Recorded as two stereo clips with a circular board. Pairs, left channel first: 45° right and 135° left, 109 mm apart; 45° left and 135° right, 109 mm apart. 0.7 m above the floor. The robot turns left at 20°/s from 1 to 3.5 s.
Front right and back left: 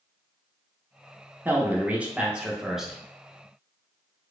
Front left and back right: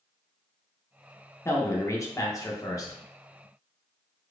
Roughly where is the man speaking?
Left.